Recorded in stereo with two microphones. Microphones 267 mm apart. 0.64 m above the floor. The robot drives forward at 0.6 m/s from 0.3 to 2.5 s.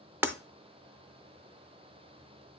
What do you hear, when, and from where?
0.2 s breaking glass: 5° right (ahead or behind), 0.5 m